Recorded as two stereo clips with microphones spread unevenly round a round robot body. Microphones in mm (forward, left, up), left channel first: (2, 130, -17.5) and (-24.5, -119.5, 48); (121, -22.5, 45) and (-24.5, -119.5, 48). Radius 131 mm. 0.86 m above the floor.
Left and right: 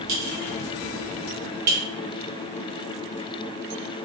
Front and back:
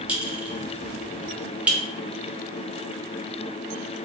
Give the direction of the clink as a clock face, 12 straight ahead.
2 o'clock.